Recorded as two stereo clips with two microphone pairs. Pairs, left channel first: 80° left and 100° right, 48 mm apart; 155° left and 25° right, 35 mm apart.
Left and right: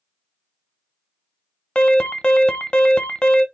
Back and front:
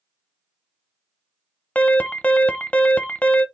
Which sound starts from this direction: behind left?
An alarm, at 1.8 s.